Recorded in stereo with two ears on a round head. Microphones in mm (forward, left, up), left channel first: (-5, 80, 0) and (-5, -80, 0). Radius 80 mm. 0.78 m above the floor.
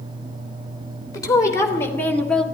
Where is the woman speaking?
20° left (ahead or behind), 3 m; by 2.5 s centre (ahead or behind), 1.7 m.